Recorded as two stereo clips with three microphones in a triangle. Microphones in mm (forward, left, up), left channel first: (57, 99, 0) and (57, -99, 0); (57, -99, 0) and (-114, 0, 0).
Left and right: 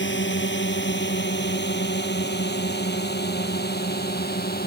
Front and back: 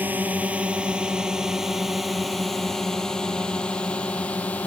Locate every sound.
0.0 s a drone: 70° left; by 4.7 s 50° left